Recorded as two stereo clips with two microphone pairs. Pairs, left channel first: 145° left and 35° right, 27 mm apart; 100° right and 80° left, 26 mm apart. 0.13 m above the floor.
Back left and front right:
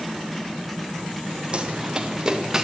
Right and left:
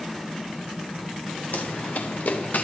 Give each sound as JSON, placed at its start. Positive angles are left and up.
{"t": 1.5, "sound": "running footsteps", "azimuth_deg": -90, "distance_m": 2.5}